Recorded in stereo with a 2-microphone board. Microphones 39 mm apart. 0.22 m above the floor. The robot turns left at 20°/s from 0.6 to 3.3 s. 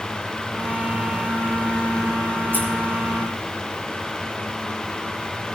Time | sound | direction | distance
2.5 | scissors | 55° right (ahead or behind) | 5 m